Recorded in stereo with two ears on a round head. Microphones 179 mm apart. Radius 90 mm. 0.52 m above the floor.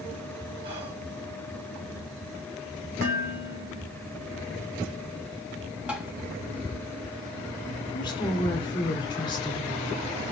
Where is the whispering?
30° right (ahead or behind), 3.5 m.